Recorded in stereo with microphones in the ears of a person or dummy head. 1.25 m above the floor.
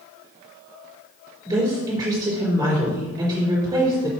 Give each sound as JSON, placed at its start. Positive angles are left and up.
{"t": 1.4, "sound": "a woman speaking", "side_deg": -20, "distance_m": 4.0}